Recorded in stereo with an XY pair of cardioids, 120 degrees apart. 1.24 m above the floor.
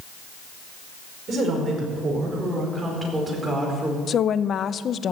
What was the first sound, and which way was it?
A woman speaking, 45° right.